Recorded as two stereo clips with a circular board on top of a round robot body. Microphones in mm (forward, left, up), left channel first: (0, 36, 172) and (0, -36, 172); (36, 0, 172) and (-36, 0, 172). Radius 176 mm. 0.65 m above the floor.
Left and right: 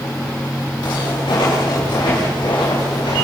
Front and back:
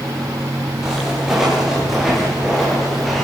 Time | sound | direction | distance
0.8 | footsteps | 95° left | 9.5 m